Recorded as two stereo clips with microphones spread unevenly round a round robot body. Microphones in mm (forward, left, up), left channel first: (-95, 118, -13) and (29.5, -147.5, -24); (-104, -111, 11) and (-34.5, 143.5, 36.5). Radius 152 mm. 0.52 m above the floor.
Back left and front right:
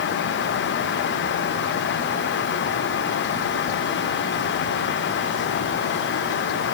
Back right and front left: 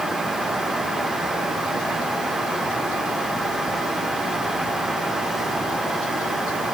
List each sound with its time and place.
Only background noise.